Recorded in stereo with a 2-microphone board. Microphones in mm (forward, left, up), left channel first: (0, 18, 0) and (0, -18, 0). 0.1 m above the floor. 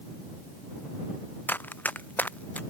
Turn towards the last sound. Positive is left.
turn(degrees=45)  # may be behind; listen again after turning